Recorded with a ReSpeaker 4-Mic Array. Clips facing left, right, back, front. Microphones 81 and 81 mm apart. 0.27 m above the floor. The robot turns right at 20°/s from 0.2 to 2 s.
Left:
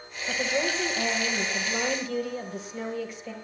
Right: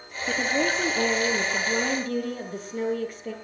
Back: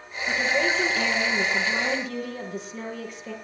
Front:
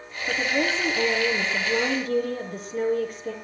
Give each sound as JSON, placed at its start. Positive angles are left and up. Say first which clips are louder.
{"t": 0.3, "sound": "a woman speaking", "louder": "right 3 dB, back 1 dB", "azimuth_deg": -80, "distance_m": 5.5}